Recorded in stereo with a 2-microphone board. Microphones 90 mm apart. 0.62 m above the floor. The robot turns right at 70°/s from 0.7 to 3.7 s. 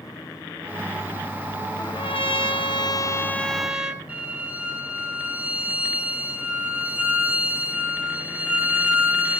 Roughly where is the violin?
Centre.